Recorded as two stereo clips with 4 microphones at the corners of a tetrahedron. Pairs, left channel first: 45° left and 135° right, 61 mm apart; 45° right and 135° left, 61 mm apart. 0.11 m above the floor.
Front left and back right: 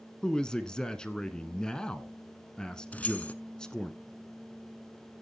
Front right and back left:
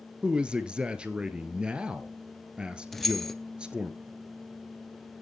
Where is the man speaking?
100° left, 1.1 m.